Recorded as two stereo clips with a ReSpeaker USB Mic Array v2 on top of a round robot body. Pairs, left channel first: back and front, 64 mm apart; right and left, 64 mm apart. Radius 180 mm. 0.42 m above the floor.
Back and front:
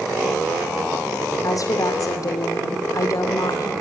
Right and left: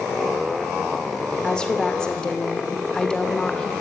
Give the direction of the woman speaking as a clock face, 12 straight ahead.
5 o'clock.